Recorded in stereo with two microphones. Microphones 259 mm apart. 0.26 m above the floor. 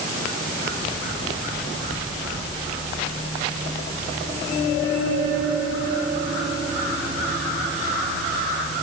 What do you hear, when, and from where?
Only background noise.